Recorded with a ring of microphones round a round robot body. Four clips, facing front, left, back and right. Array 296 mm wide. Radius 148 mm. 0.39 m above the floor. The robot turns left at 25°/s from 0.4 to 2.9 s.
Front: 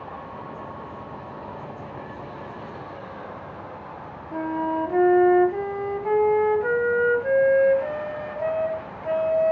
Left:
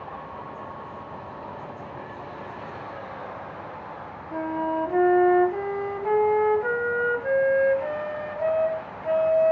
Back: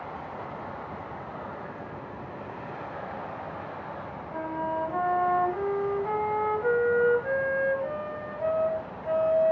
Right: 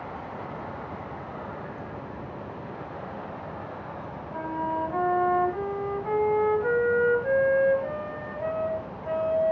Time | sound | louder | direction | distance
4.3 | a flute | left 3 dB, front 5 dB | 45° left | 1.1 m